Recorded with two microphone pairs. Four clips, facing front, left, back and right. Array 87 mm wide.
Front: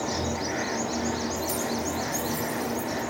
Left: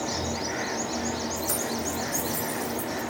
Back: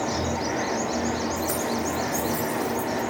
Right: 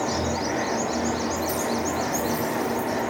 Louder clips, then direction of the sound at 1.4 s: Right 5 dB, back 3 dB; 155° left.